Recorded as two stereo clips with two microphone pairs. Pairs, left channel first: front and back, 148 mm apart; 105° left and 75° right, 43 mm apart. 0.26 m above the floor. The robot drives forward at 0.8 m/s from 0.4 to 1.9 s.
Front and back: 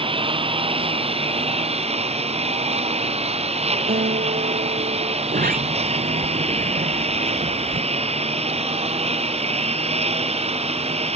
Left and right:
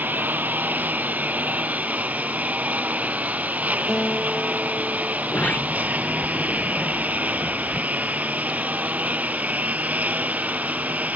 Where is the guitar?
175° left.